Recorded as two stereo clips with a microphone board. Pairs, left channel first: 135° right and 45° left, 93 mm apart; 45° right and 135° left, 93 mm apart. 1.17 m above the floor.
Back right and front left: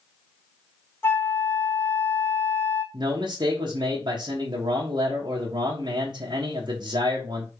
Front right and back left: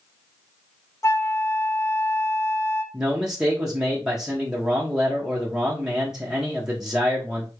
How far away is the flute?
About 0.7 m.